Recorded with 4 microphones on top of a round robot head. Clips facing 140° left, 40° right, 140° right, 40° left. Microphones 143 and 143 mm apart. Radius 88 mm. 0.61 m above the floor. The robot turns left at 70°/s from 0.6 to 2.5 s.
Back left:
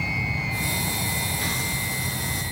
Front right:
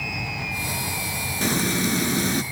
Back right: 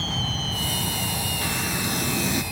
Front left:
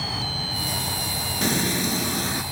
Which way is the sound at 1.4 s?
Straight ahead.